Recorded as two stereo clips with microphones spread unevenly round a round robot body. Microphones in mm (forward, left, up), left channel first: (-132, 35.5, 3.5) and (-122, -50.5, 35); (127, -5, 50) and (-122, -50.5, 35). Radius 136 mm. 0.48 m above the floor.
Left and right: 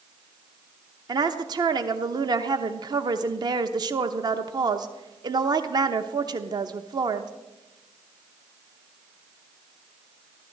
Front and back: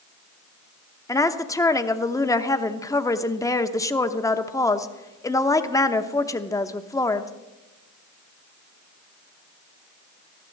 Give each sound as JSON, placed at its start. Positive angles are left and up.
{"t": 1.1, "sound": "a woman speaking", "azimuth_deg": -60, "distance_m": 0.8}